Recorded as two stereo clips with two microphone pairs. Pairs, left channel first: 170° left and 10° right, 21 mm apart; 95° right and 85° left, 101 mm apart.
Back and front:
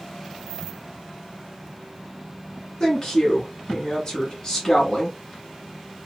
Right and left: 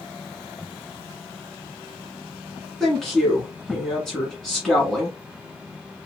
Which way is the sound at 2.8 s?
Straight behind.